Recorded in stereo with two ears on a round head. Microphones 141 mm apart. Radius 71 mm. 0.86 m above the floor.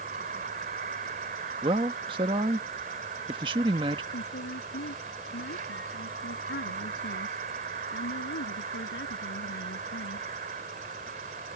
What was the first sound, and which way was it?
An insect, 55° right (ahead or behind).